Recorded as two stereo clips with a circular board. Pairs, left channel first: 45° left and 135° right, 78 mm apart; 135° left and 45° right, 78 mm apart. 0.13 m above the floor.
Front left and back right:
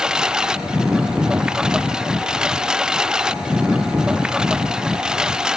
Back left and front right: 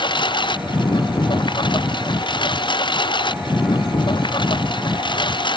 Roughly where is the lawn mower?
Behind left.